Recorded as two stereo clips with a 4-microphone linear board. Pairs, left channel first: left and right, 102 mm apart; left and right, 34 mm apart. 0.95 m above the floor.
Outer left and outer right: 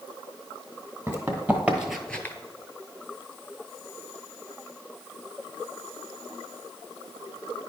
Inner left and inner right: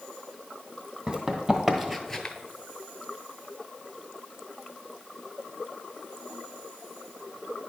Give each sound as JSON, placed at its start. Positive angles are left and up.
{"t": 1.1, "sound": "running footsteps", "side_deg": -25, "distance_m": 1.8}